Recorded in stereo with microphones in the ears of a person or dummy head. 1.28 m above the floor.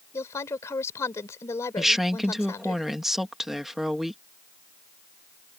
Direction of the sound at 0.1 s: 20° left (ahead or behind).